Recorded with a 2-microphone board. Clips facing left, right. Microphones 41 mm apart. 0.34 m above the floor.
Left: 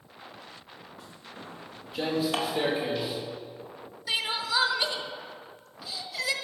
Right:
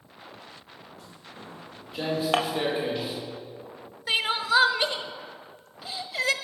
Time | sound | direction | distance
1.0 | footsteps | 10° left (ahead or behind) | 3 m
2.3 | dishes clattering | 45° right (ahead or behind) | 1.1 m
4.1 | crying | 40° right (ahead or behind) | 0.9 m